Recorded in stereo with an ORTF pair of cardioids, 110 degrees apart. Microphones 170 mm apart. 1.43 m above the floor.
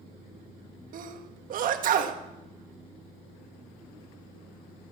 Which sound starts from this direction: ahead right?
A sneeze, at 0.9 s.